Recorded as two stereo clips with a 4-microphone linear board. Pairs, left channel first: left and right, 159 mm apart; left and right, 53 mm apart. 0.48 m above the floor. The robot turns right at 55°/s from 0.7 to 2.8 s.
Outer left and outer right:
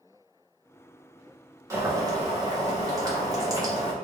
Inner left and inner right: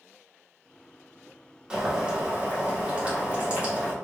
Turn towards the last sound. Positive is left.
turn(degrees=-20)  # may be behind; listen again after turning